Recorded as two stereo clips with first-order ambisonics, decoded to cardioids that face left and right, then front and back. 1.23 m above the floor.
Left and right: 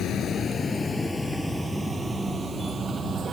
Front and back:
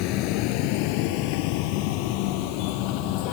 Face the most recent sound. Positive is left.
turn(degrees=-25)